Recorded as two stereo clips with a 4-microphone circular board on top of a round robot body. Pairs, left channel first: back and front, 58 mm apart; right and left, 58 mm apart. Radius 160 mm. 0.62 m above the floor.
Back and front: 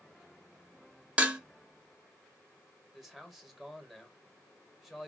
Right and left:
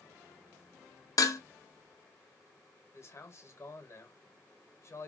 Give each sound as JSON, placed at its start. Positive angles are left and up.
{"t": 1.2, "sound": "dishes clattering", "azimuth_deg": -70, "distance_m": 0.7}
{"t": 2.9, "sound": "a man speaking", "azimuth_deg": -85, "distance_m": 1.1}